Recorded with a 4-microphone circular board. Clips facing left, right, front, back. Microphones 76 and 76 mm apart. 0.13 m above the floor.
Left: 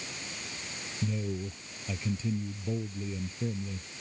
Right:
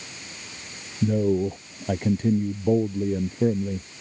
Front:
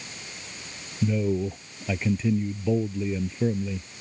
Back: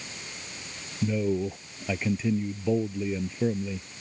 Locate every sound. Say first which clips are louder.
1.0 s a man speaking: right 13 dB, front 1 dB; 90° right